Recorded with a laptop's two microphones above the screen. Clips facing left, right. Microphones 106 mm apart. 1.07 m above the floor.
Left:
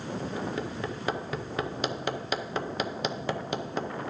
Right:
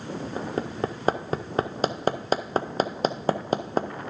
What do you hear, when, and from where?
0.4 s hammering: 40° right (ahead or behind), 0.6 m